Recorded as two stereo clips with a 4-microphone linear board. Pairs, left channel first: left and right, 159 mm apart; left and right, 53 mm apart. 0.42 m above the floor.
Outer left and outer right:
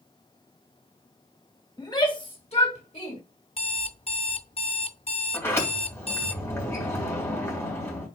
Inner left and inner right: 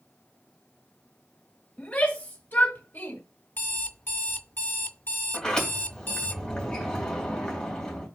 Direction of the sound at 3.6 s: 40° left (ahead or behind).